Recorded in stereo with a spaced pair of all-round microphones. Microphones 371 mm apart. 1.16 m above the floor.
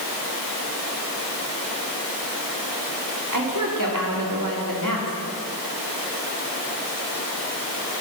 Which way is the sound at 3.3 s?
55° right (ahead or behind).